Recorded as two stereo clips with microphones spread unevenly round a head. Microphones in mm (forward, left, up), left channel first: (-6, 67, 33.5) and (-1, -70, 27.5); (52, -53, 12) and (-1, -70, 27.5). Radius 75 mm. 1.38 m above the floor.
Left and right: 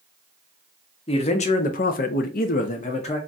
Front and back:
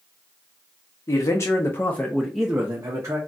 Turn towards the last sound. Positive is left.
turn(degrees=140)